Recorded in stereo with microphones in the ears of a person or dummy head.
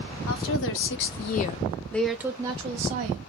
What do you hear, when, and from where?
0.3 s a woman speaking: 70° left (ahead or behind), 1.1 m; by 3.2 s 45° right (ahead or behind), 0.9 m